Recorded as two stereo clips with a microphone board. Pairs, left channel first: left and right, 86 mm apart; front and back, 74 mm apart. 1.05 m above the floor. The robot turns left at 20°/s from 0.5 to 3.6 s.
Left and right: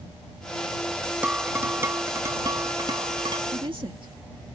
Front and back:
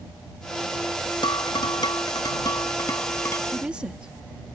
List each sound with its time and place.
1.2 s dishes clattering: 15° right; by 3.4 s 60° right
3.5 s a woman speaking: 100° right; by 4.1 s 105° right